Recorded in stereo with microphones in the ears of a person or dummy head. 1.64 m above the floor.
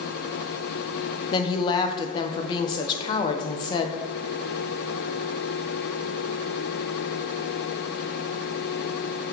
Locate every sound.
1.3 s a woman speaking: 30° left (ahead or behind), 0.7 m